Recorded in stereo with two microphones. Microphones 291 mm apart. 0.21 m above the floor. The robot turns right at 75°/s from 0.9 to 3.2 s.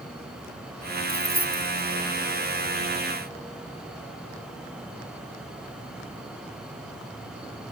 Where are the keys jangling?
65° right (ahead or behind); by 1.9 s 45° right (ahead or behind).